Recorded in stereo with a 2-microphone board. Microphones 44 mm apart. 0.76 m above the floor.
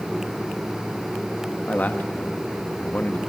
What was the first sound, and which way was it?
A man speaking, 40° left (ahead or behind).